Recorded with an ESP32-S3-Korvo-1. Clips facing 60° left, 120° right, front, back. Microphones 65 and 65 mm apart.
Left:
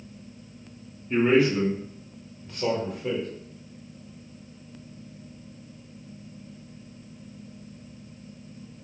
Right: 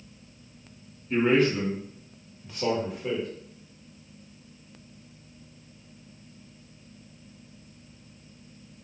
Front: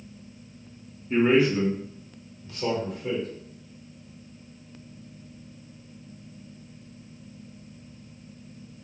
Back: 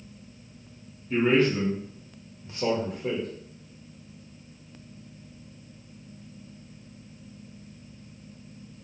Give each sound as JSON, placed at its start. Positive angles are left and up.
{"t": 1.1, "sound": "a man speaking", "azimuth_deg": -5, "distance_m": 0.9}